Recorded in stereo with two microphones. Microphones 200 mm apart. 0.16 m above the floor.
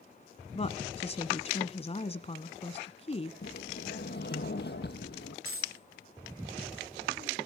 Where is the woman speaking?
30° left (ahead or behind), 1.2 m.